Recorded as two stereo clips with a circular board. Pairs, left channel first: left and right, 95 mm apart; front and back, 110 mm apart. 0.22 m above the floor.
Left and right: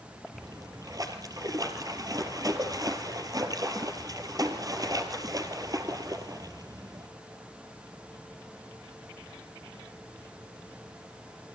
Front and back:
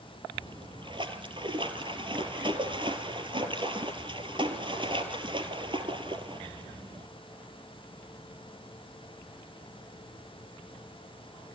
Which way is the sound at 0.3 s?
140° right.